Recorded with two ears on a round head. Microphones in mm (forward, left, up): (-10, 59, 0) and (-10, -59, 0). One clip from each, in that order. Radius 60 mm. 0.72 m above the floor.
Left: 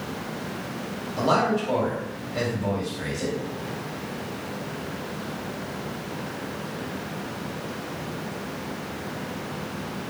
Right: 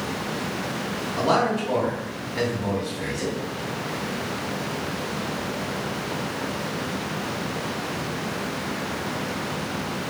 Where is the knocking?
No knocking in this recording.